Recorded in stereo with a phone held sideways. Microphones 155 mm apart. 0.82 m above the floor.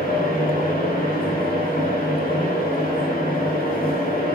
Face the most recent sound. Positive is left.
turn(degrees=60)  # may be behind; listen again after turning